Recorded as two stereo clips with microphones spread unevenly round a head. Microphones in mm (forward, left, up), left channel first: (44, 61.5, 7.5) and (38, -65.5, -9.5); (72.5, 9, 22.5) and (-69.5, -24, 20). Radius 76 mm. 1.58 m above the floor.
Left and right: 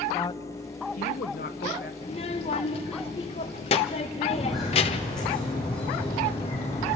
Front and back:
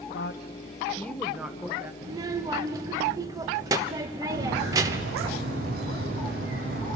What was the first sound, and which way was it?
A woman speaking, 20° left.